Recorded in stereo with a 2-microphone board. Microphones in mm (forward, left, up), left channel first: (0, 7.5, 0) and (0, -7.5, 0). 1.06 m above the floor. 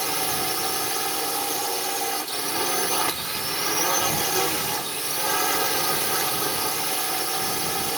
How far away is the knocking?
No knocking in this recording.